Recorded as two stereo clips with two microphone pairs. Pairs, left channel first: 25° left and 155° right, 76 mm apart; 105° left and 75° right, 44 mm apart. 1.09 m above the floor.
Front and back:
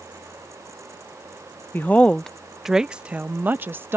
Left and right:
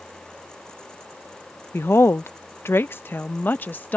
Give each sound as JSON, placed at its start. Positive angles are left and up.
{"t": 1.7, "sound": "a woman speaking", "azimuth_deg": 85}